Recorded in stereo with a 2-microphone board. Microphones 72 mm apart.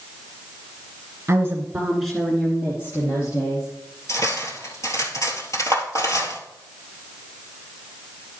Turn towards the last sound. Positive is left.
turn(degrees=45)  # may be behind; listen again after turning